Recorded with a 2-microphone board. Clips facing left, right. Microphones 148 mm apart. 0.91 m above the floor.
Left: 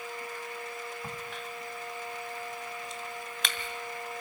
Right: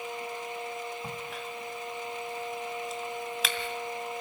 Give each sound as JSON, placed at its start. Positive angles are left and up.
{"t": 1.0, "sound": "a crack", "side_deg": -5, "distance_m": 2.0}